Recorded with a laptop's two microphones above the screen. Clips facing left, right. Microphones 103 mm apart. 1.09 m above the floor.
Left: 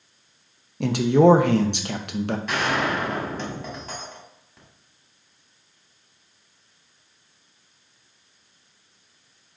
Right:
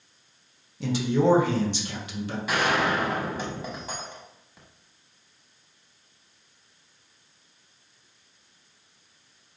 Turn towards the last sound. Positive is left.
turn(degrees=-10)  # may be behind; listen again after turning